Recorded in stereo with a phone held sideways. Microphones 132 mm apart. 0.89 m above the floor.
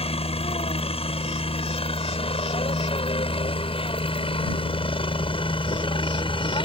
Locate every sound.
0.0 s a helicopter: 50° left (ahead or behind); by 6.7 s 40° left (ahead or behind)